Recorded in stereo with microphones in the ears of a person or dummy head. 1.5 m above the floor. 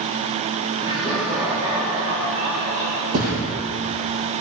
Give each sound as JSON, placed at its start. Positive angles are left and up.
{"t": 0.8, "sound": "laughter", "side_deg": -25, "distance_m": 3.5}
{"t": 3.1, "sound": "a thud", "side_deg": -50, "distance_m": 5.0}